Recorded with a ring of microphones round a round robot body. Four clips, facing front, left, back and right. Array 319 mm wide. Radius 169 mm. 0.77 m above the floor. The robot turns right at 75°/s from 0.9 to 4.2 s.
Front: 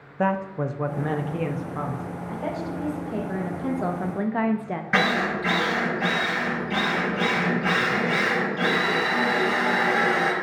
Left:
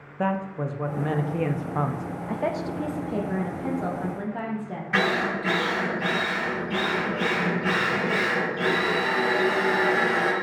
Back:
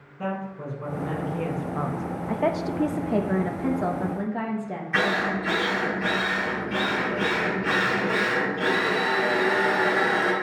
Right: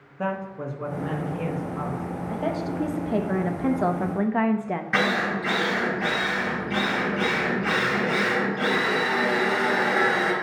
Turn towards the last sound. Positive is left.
turn(degrees=-10)